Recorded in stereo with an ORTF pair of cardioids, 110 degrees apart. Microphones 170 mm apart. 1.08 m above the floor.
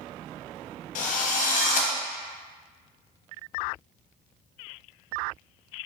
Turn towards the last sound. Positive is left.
turn(degrees=50)